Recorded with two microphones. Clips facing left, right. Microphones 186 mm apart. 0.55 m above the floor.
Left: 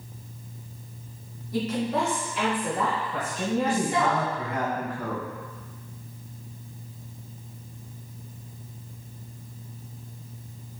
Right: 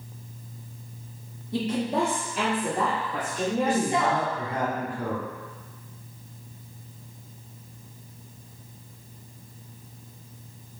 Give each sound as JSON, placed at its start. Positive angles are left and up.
{"t": 1.5, "sound": "a woman speaking", "side_deg": -25, "distance_m": 1.1}
{"t": 3.6, "sound": "a man speaking", "side_deg": -30, "distance_m": 1.4}